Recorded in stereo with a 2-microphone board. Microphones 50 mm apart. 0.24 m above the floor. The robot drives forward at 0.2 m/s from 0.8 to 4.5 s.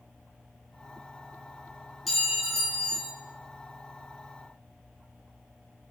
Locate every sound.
2.1 s a clink: 10° right (ahead or behind), 1.8 m